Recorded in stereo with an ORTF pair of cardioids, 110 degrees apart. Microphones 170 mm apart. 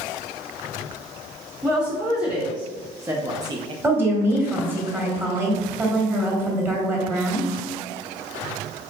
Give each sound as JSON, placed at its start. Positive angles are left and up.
{"t": 1.6, "sound": "a woman speaking", "azimuth_deg": -5, "distance_m": 1.6}
{"t": 3.8, "sound": "a woman speaking", "azimuth_deg": -15, "distance_m": 1.8}